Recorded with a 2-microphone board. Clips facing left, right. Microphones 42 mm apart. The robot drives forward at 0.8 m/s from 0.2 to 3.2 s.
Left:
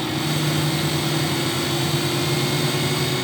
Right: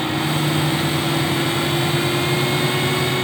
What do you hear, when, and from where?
Only background noise.